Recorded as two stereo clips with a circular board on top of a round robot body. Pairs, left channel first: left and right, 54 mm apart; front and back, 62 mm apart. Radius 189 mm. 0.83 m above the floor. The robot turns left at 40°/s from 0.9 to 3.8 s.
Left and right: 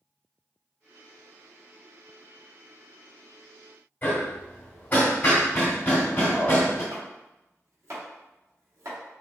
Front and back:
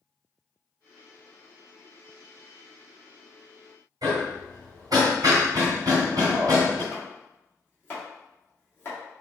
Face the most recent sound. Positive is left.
turn(degrees=-60)